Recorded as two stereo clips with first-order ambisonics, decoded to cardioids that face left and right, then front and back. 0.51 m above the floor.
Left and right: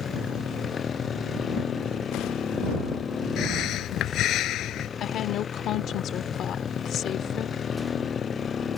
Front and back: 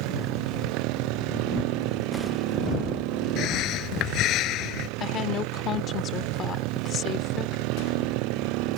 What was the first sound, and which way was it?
A motorcycle, 155° left.